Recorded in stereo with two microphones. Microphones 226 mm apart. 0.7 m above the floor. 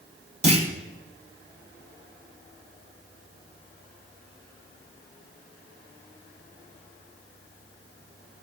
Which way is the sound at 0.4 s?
30° right (ahead or behind).